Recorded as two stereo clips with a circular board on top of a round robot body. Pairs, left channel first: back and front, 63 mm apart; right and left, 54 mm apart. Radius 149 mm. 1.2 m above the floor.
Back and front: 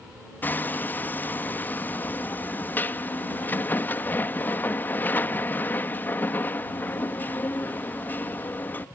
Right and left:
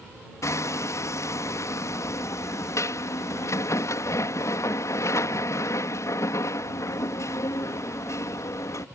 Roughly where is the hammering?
Behind right.